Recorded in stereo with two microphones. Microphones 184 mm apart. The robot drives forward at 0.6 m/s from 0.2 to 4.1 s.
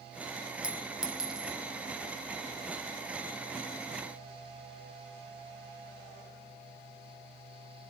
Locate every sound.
0.6 s a clink: 5° right (ahead or behind), 0.6 m